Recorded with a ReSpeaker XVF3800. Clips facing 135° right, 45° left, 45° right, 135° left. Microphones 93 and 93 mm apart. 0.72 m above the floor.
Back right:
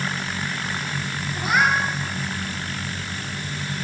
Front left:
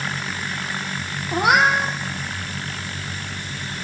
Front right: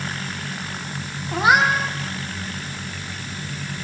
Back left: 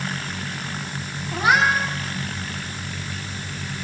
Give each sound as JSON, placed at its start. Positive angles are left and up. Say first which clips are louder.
{"t": 1.3, "sound": "a cat meowing", "louder": "front left 4 dB, front right 2 dB", "azimuth_deg": 25, "distance_m": 6.0}